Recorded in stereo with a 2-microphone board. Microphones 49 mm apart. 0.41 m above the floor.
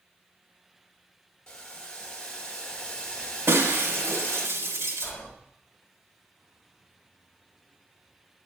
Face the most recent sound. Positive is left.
turn(degrees=20)  # may be behind; listen again after turning